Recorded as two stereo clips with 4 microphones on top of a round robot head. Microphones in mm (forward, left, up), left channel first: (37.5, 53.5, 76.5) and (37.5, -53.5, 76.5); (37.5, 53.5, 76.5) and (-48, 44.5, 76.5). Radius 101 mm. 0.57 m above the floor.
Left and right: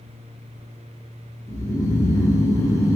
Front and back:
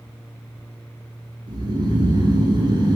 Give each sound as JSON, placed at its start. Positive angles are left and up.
{"t": 1.5, "sound": "snoring", "azimuth_deg": 155, "distance_m": 2.5}